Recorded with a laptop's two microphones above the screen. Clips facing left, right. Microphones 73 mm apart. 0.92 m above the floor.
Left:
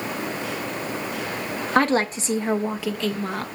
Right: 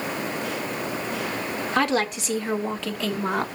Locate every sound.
1.8 s a woman speaking: 40° left (ahead or behind), 1.0 m; by 3.5 s 25° right (ahead or behind), 0.7 m